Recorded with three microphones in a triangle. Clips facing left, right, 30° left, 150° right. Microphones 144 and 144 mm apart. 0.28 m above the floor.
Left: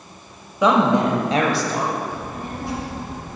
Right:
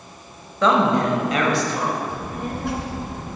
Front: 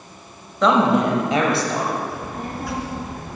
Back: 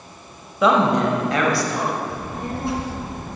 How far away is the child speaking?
About 2.5 m.